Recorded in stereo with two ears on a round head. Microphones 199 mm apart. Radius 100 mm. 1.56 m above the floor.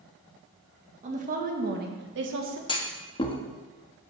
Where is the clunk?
20° left (ahead or behind), 1.1 m.